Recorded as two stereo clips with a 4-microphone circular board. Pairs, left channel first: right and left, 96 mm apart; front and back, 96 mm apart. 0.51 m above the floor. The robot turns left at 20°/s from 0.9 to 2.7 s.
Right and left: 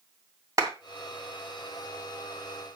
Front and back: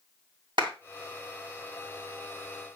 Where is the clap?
145° left, 2.5 m.